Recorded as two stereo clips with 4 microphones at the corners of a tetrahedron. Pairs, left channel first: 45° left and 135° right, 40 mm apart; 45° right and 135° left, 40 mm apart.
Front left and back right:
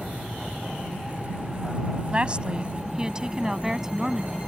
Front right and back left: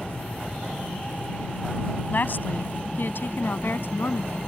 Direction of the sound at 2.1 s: 75° right.